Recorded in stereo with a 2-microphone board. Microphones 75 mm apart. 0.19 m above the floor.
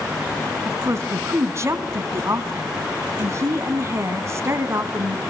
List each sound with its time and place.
0.7 s a woman speaking: 40° right (ahead or behind), 1.4 m